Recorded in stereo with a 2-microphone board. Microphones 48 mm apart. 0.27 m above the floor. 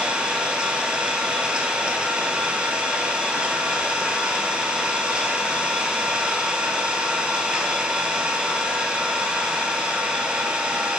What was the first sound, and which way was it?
An engine running, 20° right (ahead or behind).